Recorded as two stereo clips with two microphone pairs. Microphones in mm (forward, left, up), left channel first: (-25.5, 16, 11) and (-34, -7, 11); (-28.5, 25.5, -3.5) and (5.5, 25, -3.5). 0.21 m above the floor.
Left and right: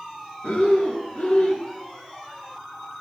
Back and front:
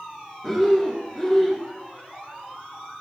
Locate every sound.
0.4 s breathing: 100° left, 0.6 m